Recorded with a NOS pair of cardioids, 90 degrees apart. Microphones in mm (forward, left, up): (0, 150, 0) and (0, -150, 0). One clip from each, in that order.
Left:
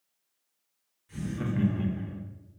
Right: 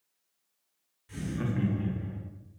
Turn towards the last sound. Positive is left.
turn(degrees=60)